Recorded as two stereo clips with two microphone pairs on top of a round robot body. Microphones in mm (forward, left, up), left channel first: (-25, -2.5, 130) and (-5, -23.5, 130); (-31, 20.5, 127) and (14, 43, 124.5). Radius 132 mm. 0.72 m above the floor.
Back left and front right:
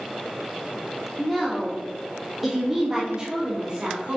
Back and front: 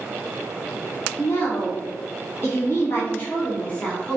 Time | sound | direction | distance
1.2 | a woman speaking | 145° right | 2 m